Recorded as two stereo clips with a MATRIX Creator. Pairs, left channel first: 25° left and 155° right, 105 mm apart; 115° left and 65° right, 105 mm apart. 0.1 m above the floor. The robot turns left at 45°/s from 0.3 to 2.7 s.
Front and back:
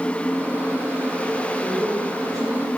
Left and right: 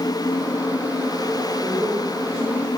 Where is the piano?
I don't hear a piano.